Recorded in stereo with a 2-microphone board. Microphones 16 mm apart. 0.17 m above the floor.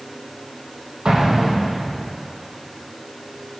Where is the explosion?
70° right (ahead or behind), 3.5 m.